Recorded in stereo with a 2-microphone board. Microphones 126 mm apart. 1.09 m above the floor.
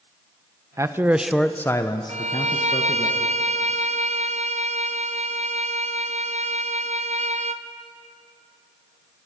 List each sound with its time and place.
0.8 s a man speaking: 25° right (ahead or behind), 0.9 m; by 3.1 s 50° left (ahead or behind), 1.6 m
2.1 s a violin: 70° right (ahead or behind), 0.6 m